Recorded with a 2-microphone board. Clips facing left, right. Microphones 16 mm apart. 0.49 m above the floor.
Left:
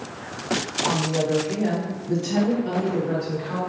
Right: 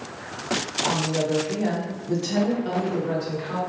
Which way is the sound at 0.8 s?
5° left (ahead or behind).